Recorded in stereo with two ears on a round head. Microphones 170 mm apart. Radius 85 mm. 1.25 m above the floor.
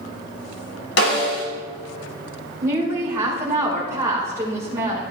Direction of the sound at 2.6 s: 15° right (ahead or behind).